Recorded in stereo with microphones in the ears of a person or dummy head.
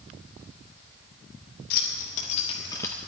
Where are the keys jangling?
60° left (ahead or behind), 2 m; by 3.0 s 10° left (ahead or behind), 1.5 m.